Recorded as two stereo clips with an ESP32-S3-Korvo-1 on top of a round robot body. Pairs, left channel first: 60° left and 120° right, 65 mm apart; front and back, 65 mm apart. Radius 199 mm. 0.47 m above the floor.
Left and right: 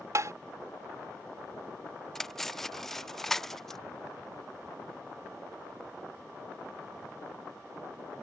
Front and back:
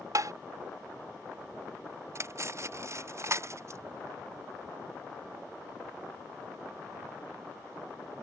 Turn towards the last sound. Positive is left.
turn(degrees=145)